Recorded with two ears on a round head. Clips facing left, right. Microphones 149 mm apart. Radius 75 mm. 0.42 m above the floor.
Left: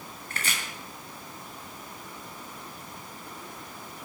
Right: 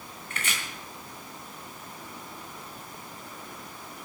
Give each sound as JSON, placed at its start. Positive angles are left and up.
{"t": 0.3, "sound": "chopping", "side_deg": 35, "distance_m": 3.0}